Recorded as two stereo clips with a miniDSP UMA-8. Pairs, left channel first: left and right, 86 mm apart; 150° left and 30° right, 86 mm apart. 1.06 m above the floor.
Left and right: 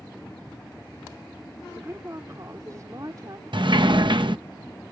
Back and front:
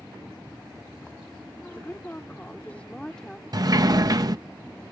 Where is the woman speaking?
150° right; by 3.4 s 125° right.